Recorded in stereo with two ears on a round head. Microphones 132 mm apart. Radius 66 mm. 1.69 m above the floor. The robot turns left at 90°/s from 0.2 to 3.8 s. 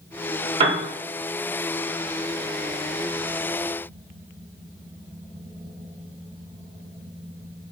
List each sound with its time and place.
0.6 s a piano: 35° right (ahead or behind), 0.8 m; by 0.8 s 45° right (ahead or behind), 0.8 m